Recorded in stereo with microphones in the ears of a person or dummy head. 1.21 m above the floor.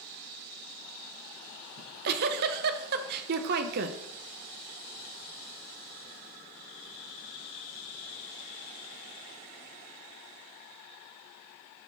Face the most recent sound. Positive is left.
turn(degrees=-50)  # may be behind; listen again after turning